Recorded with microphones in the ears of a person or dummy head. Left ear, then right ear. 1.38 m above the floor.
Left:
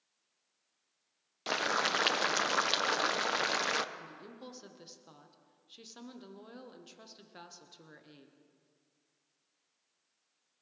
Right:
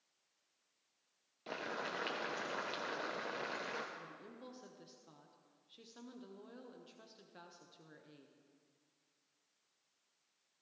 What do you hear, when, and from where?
1.5 s boiling: 40° left (ahead or behind), 0.7 m
4.0 s a woman speaking: 15° left (ahead or behind), 1.2 m